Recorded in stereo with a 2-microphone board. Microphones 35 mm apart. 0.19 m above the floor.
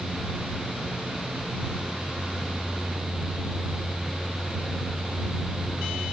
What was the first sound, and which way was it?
Only background noise.